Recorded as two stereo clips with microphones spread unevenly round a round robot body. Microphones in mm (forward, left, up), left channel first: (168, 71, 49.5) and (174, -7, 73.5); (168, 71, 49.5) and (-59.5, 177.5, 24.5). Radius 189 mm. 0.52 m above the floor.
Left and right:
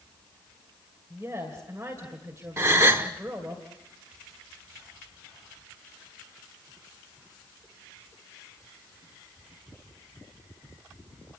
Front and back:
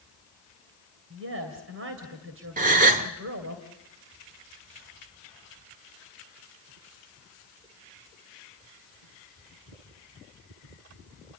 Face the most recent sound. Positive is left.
turn(degrees=-155)